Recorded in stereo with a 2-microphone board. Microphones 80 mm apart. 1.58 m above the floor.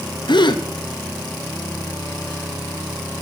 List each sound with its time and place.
0.3 s a gasp: 80° left, 1.0 m